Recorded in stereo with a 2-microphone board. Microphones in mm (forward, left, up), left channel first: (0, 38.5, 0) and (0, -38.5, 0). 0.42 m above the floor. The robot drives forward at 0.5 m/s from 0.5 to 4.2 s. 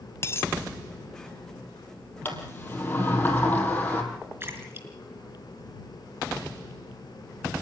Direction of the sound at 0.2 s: 35° left (ahead or behind).